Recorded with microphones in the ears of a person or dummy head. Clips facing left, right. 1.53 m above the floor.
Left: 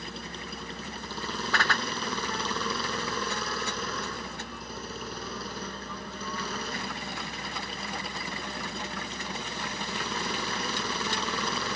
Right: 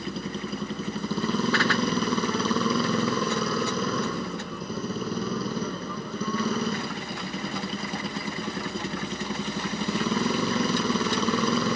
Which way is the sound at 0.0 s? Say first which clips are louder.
Right 8 dB; 70° right (ahead or behind).